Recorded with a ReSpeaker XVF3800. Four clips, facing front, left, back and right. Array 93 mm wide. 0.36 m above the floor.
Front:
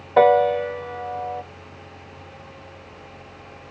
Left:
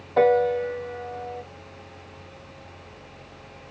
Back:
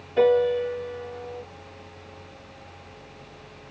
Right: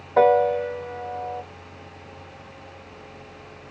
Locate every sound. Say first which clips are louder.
0.2 s a piano: right 2 dB, front 4 dB; 15° right, 0.7 m